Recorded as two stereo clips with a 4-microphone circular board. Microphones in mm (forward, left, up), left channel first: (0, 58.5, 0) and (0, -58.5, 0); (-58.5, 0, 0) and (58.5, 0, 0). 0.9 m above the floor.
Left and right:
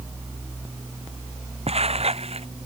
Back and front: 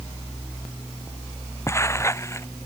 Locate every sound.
1.7 s footsteps: 115° right